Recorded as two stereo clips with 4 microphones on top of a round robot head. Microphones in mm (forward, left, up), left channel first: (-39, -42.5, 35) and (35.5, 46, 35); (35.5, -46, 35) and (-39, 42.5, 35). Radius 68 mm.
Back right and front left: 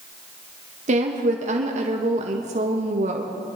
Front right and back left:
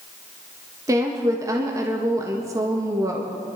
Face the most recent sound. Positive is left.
turn(degrees=65)